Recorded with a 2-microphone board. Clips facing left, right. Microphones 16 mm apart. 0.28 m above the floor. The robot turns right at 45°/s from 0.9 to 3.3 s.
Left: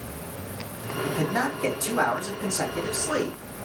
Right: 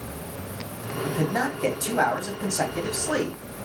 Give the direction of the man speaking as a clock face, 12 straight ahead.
6 o'clock.